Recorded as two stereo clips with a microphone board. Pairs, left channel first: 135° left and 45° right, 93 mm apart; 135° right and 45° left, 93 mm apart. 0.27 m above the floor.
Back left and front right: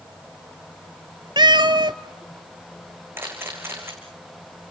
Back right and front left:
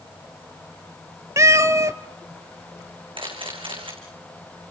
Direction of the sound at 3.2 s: 20° left.